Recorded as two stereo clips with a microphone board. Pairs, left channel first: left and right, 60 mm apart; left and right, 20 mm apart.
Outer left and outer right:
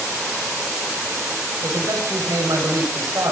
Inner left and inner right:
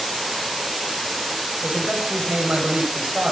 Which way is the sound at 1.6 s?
70° right (ahead or behind).